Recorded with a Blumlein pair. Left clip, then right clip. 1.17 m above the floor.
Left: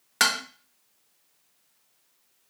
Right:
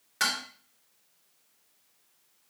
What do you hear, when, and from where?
0.2 s dishes clattering: 30° left, 0.8 m